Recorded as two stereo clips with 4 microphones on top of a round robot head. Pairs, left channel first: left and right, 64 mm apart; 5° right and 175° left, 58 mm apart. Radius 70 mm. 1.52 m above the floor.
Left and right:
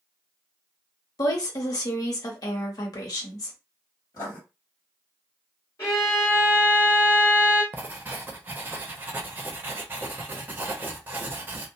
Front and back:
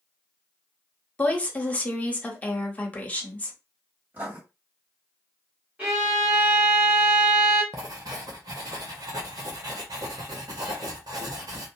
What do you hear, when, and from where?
1.2 s a woman speaking: 60° left, 0.9 m
4.1 s writing: 125° left, 1.7 m
5.8 s a violin: 115° left, 1.4 m
7.7 s writing: 150° right, 0.6 m